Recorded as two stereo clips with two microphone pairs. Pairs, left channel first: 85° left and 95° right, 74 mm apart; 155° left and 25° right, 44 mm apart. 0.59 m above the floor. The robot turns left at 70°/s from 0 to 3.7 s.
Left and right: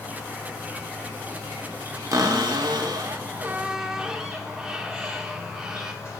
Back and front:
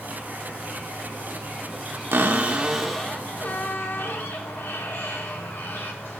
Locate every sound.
0.0 s an insect: 30° left, 3 m; by 6.2 s 130° left, 3 m
2.1 s a cupboard door: 65° right, 0.6 m; by 5.9 s 175° right, 0.6 m